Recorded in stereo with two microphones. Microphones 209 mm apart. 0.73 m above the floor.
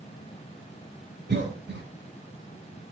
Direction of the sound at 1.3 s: 55° right (ahead or behind).